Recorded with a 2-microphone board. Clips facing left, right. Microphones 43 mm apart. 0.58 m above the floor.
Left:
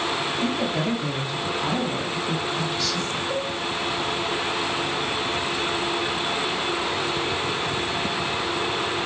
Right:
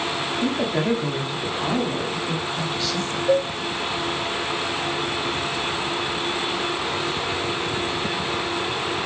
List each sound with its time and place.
0.4 s a woman speaking: 25° right (ahead or behind), 1.3 m; by 3.2 s 30° right (ahead or behind), 2.5 m
3.3 s a cowbell: 50° right (ahead or behind), 1.1 m